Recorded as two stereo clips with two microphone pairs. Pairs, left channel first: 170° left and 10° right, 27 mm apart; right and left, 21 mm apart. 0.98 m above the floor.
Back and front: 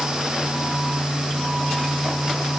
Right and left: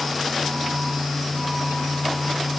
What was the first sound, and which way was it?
Only background noise.